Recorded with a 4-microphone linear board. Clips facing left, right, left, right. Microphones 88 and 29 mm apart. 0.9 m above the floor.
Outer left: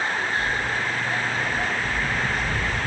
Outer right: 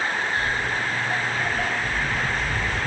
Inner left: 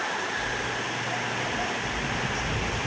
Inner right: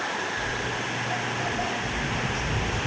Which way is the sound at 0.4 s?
45° right (ahead or behind).